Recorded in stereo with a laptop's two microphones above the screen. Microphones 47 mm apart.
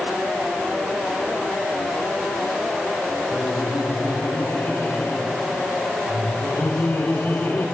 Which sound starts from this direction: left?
Laughter, at 3.3 s.